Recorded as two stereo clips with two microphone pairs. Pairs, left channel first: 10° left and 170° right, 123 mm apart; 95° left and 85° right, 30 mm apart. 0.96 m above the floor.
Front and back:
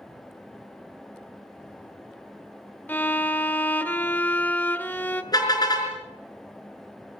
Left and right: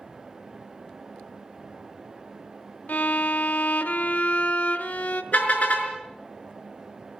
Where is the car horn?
65° left, 5 m.